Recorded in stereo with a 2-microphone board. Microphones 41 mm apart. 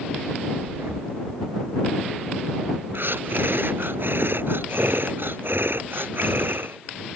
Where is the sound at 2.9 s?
65° right (ahead or behind).